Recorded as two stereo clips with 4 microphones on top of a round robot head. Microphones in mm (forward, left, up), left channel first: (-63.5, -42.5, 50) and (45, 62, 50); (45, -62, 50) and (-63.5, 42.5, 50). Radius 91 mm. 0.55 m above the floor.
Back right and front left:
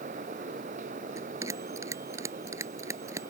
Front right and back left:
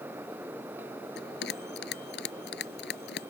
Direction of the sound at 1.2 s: 30° right.